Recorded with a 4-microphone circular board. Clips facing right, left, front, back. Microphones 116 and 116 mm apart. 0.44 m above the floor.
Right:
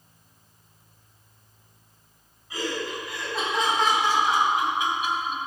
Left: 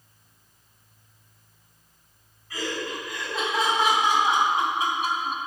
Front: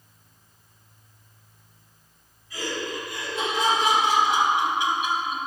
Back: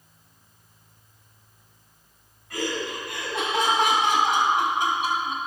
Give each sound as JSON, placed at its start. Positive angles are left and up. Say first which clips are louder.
{"t": 2.5, "sound": "laughter", "louder": "right 1 dB, back 2 dB", "azimuth_deg": -165, "distance_m": 3.5}